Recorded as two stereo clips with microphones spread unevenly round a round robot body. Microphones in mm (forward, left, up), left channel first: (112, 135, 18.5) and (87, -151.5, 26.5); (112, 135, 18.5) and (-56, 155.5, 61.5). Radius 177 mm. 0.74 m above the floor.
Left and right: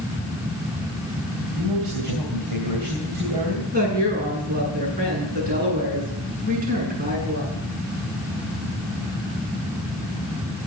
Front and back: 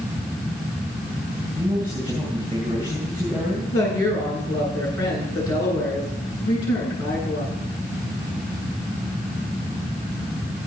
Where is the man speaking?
95° right, 3 m.